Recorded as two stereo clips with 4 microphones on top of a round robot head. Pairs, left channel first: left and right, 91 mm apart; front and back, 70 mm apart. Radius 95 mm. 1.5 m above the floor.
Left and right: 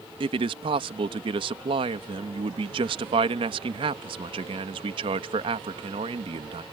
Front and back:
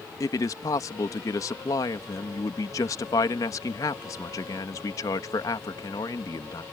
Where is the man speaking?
50° right.